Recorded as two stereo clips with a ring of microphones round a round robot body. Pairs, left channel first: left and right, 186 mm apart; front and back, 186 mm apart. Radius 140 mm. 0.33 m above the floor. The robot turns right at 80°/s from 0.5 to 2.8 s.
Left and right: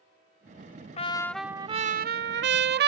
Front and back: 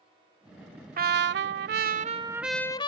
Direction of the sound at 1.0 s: 145° left.